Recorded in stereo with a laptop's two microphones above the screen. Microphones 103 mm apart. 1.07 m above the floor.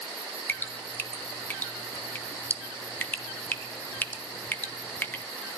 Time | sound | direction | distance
0.5 | dripping | 15° left (ahead or behind) | 0.7 m